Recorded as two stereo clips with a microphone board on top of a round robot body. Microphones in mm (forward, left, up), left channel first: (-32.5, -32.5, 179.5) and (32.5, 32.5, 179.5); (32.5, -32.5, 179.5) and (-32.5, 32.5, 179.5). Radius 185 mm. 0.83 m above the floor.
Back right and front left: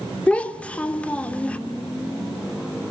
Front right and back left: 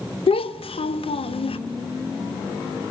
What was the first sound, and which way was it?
A child speaking, 55° right.